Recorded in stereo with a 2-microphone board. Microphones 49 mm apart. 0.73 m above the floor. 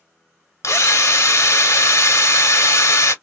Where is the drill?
75° left (ahead or behind), 0.8 m.